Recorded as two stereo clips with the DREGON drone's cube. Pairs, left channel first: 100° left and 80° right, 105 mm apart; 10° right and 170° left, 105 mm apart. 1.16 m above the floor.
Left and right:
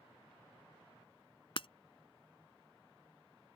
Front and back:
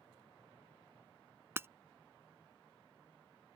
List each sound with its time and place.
1.6 s breaking glass: 110° left